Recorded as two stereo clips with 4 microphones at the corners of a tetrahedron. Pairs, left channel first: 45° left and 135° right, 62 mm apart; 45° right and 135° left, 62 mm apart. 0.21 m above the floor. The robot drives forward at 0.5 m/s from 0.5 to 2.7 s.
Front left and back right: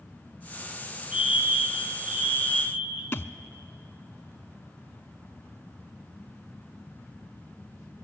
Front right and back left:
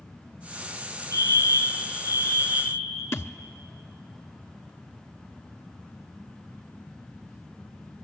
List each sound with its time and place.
1.1 s a fire alarm: 165° left, 8 m
3.1 s a thud: 5° right, 0.6 m